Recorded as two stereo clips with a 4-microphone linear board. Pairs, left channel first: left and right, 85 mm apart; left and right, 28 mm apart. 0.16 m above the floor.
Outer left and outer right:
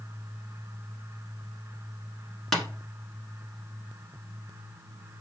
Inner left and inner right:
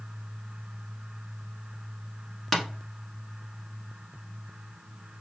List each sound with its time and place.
2.5 s tapping: 5° left (ahead or behind), 1.0 m